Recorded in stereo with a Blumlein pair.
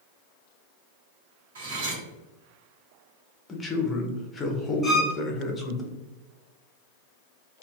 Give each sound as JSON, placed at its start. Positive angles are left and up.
{"t": 1.6, "sound": "cutlery clinking", "azimuth_deg": -60, "distance_m": 2.0}
{"t": 3.5, "sound": "a man speaking", "azimuth_deg": 15, "distance_m": 0.8}
{"t": 4.8, "sound": "a violin", "azimuth_deg": 0, "distance_m": 1.0}